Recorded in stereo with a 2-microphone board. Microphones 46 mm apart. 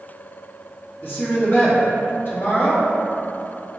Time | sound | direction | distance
1.0 | a woman speaking | 50° left (ahead or behind) | 1.0 m